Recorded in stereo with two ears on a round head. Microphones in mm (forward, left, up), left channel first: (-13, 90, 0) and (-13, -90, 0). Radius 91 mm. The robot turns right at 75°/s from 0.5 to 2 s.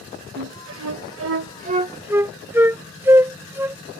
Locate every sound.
0.4 s a flute: 55° right (ahead or behind); by 3.8 s 10° right (ahead or behind)